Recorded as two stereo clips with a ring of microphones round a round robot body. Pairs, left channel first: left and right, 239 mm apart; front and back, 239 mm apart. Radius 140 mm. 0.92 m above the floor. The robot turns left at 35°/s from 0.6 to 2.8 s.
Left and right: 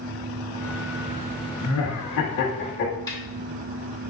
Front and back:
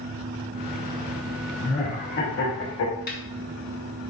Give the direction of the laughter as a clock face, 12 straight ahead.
9 o'clock.